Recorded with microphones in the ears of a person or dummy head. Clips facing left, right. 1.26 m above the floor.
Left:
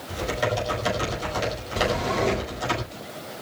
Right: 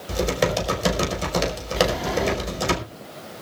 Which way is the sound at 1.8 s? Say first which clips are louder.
Right 2 dB; 5° right (ahead or behind).